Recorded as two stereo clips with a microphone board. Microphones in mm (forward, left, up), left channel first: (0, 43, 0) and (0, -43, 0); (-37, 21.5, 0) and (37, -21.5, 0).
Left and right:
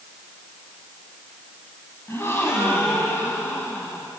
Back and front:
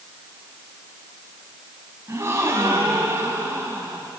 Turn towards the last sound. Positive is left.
turn(degrees=30)